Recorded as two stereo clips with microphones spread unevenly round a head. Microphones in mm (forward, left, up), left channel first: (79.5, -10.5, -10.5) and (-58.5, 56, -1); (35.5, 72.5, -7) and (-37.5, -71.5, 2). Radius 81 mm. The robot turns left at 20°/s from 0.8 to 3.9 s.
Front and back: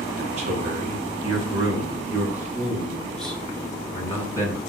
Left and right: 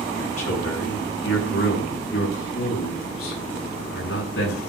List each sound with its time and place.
0.2 s a man speaking: 110° left, 9 m; by 4.6 s 45° left, 9 m